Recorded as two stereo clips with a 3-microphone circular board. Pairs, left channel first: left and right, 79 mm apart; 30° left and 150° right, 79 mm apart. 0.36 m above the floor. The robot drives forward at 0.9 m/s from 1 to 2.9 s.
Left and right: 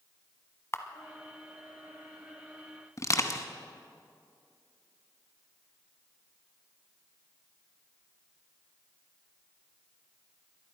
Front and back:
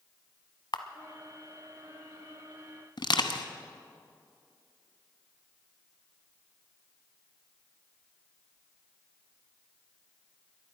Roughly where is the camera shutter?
Ahead left.